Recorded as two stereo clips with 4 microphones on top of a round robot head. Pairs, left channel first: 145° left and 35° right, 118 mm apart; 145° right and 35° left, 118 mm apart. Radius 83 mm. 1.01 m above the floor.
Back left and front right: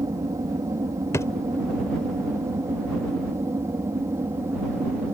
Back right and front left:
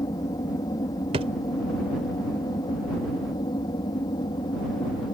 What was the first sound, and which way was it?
An aircraft, 90° right.